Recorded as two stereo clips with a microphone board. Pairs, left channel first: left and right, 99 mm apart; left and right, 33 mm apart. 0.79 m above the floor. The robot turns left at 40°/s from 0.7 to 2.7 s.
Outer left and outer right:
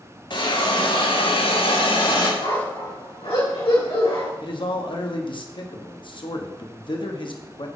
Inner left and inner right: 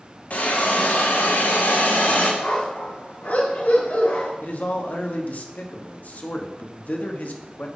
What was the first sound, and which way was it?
A hiss, 125° left.